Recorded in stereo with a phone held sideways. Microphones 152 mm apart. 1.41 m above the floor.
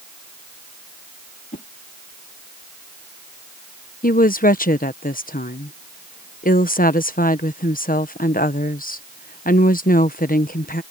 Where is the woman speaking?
70° left (ahead or behind).